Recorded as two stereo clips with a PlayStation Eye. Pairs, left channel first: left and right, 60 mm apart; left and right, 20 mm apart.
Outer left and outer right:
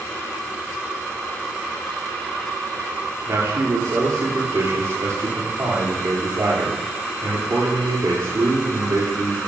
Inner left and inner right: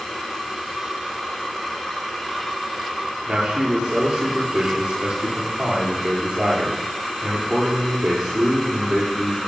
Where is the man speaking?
70° right (ahead or behind), 7 m.